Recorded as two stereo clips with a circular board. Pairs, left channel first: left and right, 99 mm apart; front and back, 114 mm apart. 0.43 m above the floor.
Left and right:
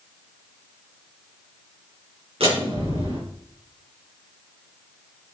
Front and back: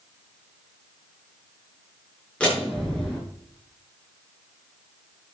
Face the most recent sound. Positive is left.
turn(degrees=-80)